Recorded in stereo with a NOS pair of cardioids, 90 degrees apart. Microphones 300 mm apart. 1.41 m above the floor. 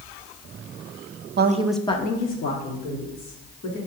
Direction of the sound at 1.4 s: 35° right.